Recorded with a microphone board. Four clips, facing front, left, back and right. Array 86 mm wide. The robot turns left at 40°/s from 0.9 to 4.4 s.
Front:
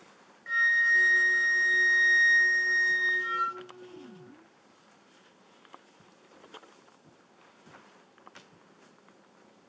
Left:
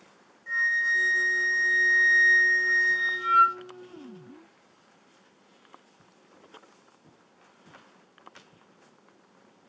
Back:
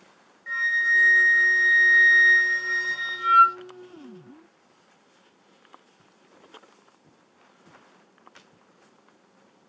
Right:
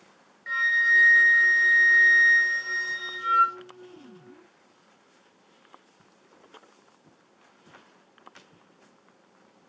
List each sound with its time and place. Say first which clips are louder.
0.5 s a flute: right 3 dB, back 1 dB; 80° right, 0.5 m; by 3.6 s 170° left, 0.5 m